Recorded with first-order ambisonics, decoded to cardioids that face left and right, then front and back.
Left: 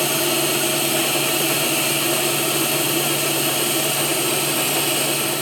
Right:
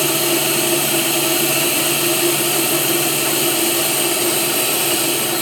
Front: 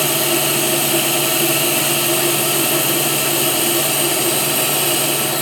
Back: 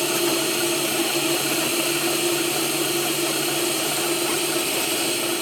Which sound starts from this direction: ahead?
Running water, at 0.0 s.